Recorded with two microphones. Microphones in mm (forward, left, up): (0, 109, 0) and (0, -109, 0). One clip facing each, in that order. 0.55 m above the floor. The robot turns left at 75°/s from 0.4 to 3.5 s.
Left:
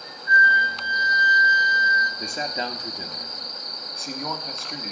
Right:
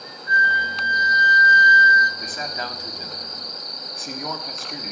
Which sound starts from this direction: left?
A man speaking, at 2.2 s.